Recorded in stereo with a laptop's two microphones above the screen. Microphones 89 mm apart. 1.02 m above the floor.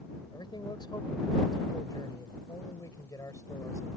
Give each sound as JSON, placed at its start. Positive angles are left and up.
{"t": 0.3, "sound": "a man speaking", "side_deg": 55}